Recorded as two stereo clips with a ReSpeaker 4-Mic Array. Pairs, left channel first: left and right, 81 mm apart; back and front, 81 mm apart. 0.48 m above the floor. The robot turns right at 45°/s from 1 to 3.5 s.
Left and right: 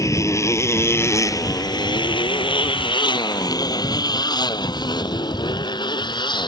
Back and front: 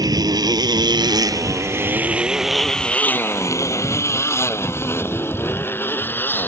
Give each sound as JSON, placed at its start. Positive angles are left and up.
{"t": 0.0, "sound": "a motorcycle", "azimuth_deg": 40}